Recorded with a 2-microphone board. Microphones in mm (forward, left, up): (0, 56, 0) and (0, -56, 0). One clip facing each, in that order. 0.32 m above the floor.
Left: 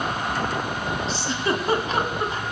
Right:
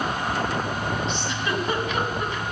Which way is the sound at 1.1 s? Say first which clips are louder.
Left 2 dB; 35° left (ahead or behind).